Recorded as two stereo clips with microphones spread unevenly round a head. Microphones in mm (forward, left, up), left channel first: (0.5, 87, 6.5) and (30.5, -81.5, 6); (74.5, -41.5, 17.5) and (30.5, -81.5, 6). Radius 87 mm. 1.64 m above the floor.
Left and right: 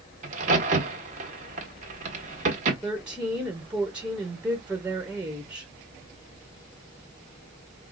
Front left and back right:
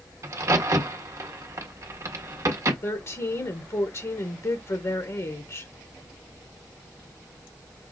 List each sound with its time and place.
0.2 s a crack: 110° right, 1.6 m
2.8 s a woman speaking: 5° left, 1.4 m